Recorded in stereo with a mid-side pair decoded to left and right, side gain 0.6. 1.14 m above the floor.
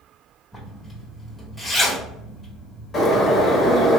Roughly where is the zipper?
Ahead.